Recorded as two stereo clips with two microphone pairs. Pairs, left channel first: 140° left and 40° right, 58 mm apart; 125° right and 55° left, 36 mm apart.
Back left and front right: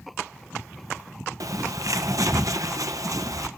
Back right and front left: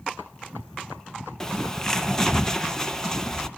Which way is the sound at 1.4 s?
50° right.